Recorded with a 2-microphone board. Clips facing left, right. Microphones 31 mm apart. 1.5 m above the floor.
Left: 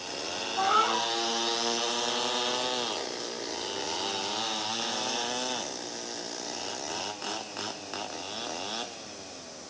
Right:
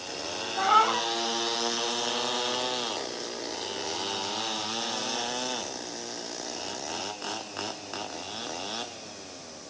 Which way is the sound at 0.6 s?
20° right (ahead or behind).